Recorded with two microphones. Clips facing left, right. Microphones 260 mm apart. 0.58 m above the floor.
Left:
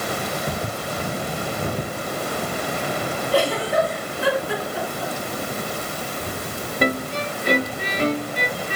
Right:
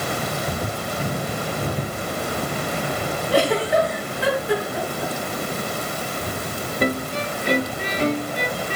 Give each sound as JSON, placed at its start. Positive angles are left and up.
{"t": 3.3, "sound": "a giggle", "side_deg": -75, "distance_m": 4.5}